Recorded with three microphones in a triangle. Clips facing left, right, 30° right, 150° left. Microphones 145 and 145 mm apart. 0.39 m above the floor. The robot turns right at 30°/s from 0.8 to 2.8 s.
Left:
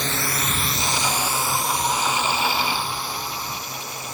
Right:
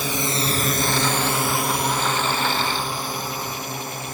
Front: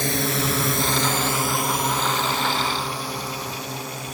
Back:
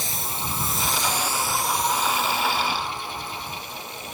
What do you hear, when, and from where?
0.0 s a drone: 5° right; by 4.2 s 50° right